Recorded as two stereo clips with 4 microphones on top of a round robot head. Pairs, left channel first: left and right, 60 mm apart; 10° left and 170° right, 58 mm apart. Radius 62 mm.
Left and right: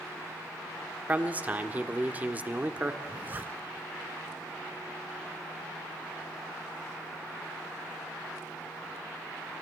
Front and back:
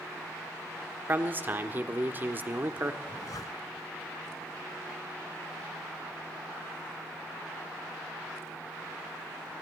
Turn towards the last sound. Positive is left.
turn(degrees=-30)